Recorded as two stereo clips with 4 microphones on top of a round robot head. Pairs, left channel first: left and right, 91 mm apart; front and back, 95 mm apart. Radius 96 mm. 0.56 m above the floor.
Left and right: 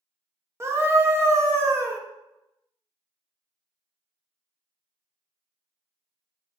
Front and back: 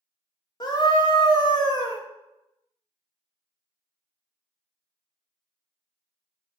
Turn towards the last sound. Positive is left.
turn(degrees=-35)